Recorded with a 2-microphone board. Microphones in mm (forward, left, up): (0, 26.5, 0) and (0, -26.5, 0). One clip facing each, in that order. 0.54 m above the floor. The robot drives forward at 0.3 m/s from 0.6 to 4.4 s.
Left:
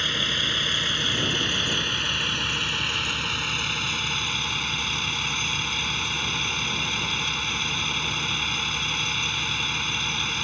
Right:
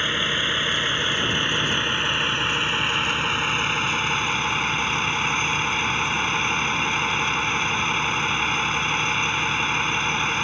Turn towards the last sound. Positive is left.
turn(degrees=-30)  # may be behind; listen again after turning